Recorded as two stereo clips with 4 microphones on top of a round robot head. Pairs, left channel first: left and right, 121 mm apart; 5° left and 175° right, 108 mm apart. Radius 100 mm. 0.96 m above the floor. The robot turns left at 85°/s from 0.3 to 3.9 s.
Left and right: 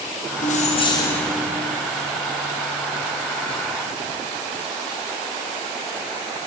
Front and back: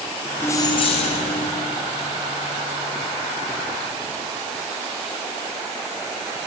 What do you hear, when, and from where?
0.4 s keys jangling: 75° left, 0.7 m; by 1.5 s 15° right, 0.7 m